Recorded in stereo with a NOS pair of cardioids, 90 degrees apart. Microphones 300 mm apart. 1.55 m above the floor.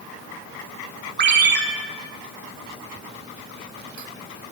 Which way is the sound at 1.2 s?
40° right.